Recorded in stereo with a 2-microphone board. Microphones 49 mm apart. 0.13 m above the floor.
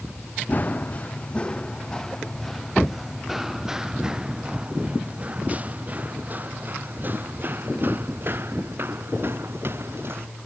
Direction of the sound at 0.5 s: 35° left (ahead or behind).